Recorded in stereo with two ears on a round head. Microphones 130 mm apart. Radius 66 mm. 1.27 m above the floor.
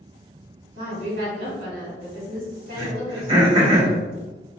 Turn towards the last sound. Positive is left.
turn(degrees=-35)  # may be behind; listen again after turning